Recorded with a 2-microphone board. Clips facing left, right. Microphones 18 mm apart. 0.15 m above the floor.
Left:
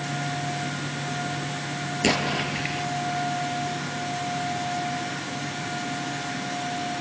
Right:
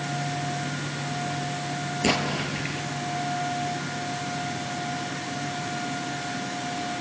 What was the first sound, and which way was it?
An explosion, 20° left (ahead or behind).